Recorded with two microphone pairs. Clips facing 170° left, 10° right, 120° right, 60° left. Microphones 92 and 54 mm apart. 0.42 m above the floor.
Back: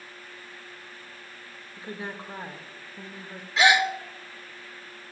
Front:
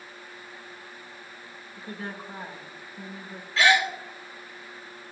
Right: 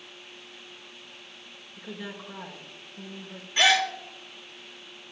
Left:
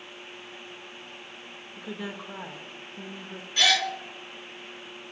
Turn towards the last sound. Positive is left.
turn(degrees=-140)